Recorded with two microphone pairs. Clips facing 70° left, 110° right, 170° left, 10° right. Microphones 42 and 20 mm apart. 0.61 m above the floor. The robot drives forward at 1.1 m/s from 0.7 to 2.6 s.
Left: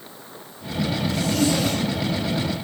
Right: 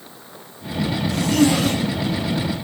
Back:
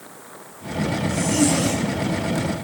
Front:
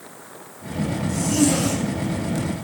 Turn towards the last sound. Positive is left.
turn(degrees=-125)